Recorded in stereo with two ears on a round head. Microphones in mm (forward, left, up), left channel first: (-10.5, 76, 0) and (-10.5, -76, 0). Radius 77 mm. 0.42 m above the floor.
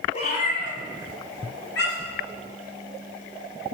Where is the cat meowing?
40° left (ahead or behind), 1.5 m; by 2.2 s 70° left (ahead or behind), 4 m.